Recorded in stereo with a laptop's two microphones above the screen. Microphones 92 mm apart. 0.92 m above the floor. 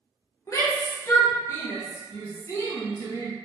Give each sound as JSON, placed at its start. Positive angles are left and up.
{"t": 0.5, "sound": "a shout", "side_deg": 35, "distance_m": 0.8}